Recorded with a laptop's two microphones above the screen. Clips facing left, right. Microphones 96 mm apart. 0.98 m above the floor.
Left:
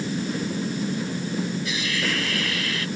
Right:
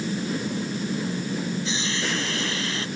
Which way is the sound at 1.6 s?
25° right (ahead or behind).